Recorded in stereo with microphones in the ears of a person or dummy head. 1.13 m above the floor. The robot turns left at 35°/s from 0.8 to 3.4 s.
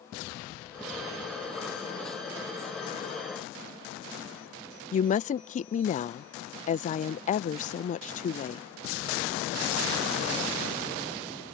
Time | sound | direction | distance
4.9 | a woman speaking | 30° left (ahead or behind) | ?